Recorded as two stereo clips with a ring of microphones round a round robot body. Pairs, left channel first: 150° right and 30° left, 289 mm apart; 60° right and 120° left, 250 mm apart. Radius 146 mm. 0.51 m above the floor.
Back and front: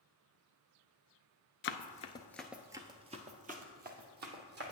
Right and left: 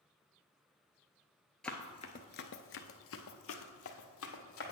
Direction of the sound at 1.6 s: 145° right.